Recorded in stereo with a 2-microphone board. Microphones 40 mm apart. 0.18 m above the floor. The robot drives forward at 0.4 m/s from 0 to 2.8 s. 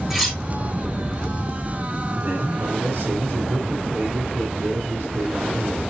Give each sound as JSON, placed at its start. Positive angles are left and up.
{"t": 0.1, "sound": "cutlery clinking", "side_deg": 0, "distance_m": 1.9}
{"t": 2.2, "sound": "a man speaking", "side_deg": -50, "distance_m": 2.5}